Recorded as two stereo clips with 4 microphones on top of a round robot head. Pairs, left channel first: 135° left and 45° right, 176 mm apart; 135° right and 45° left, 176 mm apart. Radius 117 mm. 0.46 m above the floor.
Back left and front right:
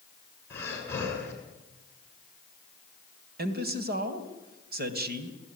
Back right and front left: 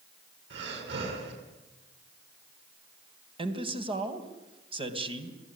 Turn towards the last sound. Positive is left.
turn(degrees=-15)